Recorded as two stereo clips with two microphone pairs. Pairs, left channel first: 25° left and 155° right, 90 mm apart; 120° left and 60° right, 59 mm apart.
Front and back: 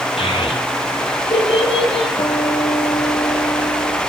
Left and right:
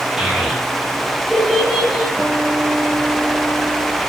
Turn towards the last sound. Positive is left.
turn(degrees=5)